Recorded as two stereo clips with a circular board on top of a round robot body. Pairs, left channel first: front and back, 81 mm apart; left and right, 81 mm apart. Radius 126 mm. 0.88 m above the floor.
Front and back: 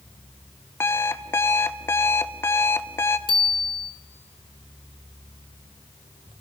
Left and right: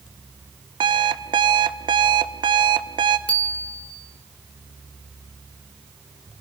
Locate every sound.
0.8 s an alarm clock: 60° right, 0.6 m
3.3 s a bicycle bell: 15° left, 2.5 m